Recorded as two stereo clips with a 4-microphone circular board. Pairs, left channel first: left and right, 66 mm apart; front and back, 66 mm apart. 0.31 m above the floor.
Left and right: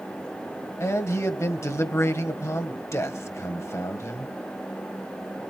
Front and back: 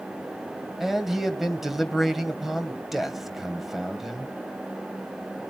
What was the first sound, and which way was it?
A man speaking, 95° left.